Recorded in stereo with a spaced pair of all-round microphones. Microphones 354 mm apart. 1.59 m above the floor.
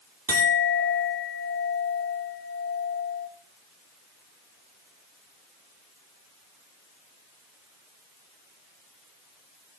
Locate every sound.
0.3 s a clink: 70° right (ahead or behind), 2.5 m